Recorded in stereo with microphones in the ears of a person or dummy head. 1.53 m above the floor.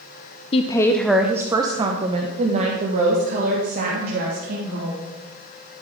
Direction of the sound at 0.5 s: 30° left (ahead or behind).